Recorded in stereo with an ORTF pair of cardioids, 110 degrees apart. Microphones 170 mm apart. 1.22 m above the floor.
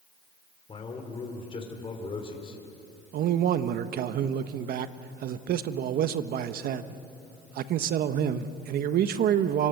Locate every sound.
0.7 s a man speaking: 30° left, 3.5 m
3.1 s a man speaking: 60° right, 1.1 m